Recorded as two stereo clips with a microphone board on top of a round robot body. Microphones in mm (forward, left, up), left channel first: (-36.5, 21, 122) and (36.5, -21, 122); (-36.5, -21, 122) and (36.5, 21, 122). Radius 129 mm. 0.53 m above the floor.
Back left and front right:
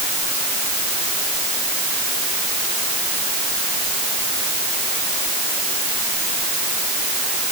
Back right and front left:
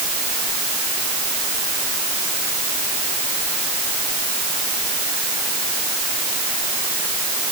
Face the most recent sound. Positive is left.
No sound to turn to.